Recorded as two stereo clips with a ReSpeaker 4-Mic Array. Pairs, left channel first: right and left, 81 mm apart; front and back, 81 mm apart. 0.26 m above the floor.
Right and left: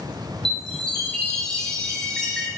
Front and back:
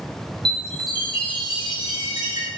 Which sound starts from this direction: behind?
A chime, at 0.5 s.